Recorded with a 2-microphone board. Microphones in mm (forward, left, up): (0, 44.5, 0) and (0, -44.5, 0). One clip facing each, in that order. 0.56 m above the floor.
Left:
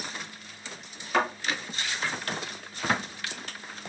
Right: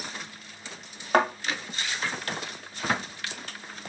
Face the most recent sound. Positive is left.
turn(degrees=-50)  # may be behind; listen again after turning